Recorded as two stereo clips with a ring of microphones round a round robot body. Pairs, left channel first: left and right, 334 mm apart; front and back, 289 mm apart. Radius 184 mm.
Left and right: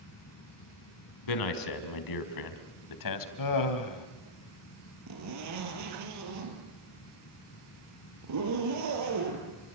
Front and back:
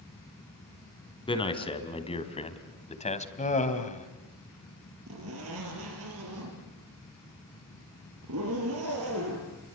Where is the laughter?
65° left, 3 m.